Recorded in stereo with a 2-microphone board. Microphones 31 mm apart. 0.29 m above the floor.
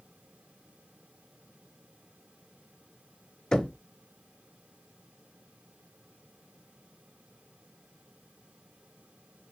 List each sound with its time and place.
3.5 s knocking: 25° left (ahead or behind), 1.1 m